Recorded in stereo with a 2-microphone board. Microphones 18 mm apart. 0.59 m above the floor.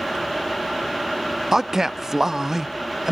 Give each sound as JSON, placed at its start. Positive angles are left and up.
{"t": 1.5, "sound": "a man speaking", "side_deg": -20, "distance_m": 0.6}